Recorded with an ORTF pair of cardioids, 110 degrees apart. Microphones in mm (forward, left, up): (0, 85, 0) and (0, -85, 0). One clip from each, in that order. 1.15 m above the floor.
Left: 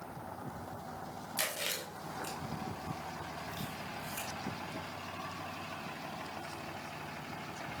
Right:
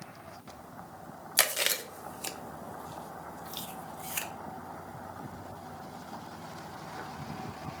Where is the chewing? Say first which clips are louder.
Right 8 dB; 60° right, 0.7 m.